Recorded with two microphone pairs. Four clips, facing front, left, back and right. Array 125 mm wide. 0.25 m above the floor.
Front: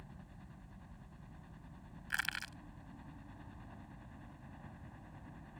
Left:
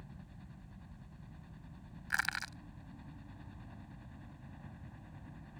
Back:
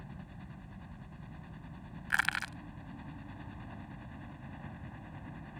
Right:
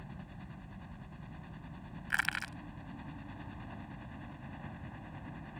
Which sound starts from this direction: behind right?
A helicopter, at 0.0 s.